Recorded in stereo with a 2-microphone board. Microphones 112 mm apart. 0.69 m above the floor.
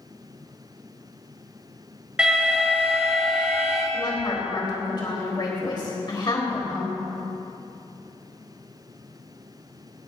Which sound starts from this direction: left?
A woman speaking, at 3.9 s.